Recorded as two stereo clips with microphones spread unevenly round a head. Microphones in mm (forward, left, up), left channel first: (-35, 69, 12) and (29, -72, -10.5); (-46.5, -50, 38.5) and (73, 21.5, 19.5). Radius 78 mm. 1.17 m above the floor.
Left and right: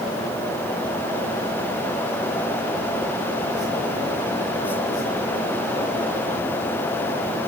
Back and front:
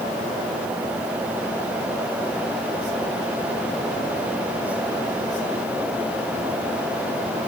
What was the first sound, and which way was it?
Only background noise.